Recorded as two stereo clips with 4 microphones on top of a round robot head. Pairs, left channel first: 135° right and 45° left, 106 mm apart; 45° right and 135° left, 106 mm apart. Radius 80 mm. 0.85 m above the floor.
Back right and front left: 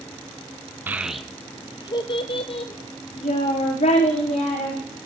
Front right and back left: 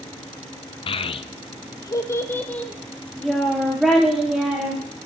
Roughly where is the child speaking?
Ahead right.